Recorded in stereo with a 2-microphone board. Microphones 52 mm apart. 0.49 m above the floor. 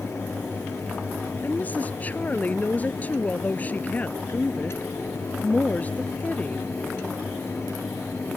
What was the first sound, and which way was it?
A woman speaking, 30° left (ahead or behind).